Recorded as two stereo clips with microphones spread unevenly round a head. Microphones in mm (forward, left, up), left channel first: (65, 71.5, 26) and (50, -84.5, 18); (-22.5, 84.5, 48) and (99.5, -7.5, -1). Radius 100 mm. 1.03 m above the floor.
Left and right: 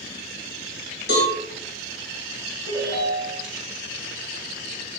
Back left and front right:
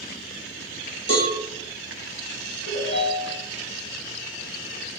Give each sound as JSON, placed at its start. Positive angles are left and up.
{"t": 1.1, "sound": "a cowbell", "azimuth_deg": 105, "distance_m": 1.6}
{"t": 2.6, "sound": "a ringtone", "azimuth_deg": 145, "distance_m": 2.5}